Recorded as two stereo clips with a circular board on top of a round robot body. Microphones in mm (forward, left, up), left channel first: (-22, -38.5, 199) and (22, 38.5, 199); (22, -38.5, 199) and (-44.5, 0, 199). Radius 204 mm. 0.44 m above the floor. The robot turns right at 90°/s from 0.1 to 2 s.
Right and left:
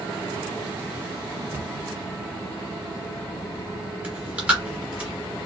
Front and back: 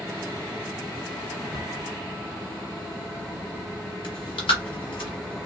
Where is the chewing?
15° right, 0.7 m.